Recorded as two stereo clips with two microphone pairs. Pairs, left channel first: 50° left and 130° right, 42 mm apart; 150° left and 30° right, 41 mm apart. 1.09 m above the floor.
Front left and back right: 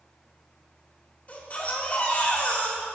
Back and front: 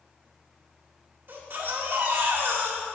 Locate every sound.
1.3 s a baby crying: straight ahead, 1.5 m